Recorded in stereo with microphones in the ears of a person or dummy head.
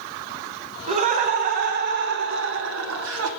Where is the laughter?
40° right (ahead or behind), 2 m; by 3.3 s 75° right (ahead or behind), 1.4 m.